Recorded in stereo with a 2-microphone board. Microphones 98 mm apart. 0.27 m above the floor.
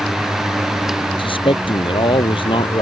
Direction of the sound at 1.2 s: 60° left (ahead or behind).